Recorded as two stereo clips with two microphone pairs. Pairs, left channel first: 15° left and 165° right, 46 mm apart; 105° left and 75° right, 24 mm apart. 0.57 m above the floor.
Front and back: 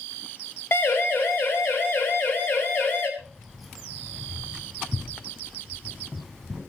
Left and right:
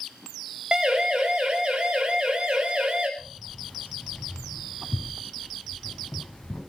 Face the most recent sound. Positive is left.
turn(degrees=110)